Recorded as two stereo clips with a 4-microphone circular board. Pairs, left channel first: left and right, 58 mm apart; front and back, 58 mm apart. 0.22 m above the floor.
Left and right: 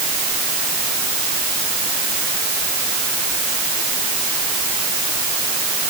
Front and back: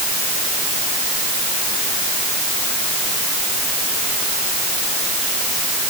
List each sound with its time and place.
Only background noise.